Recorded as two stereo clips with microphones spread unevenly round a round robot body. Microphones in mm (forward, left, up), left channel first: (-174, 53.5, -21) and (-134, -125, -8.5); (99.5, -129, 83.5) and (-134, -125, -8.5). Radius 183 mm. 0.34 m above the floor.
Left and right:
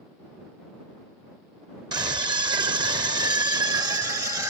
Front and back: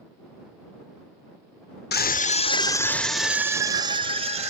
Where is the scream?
40° right; by 4.5 s 150° right.